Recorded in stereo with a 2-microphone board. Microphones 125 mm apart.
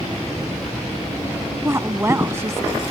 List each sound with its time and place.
1.6 s a woman speaking: 20° right (ahead or behind)